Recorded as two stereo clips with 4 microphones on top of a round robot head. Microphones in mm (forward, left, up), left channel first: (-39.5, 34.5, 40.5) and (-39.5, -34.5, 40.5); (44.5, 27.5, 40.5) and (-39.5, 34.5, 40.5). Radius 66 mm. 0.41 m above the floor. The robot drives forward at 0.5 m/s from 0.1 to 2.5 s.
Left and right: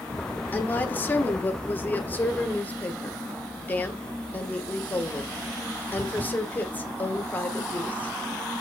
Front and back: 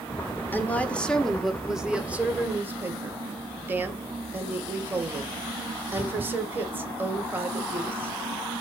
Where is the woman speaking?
45° left, 1.3 m; by 8.1 s 130° left, 1.3 m.